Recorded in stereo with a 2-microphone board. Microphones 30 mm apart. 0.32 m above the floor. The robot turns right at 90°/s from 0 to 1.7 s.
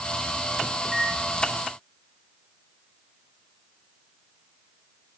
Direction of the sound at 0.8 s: 5° left (ahead or behind).